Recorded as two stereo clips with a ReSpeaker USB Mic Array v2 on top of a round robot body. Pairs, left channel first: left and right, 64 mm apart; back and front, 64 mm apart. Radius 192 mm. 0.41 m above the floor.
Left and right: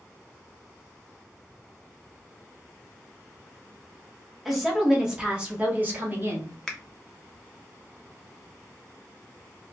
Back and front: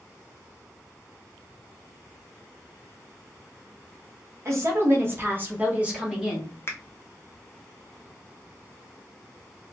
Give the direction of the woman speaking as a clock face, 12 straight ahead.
12 o'clock.